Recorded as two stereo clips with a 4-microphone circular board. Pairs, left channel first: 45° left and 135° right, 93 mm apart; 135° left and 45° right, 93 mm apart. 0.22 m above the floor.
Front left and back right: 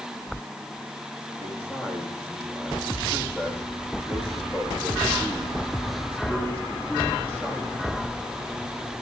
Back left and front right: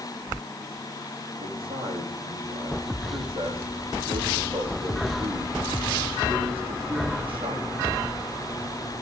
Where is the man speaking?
25° right, 8.5 m.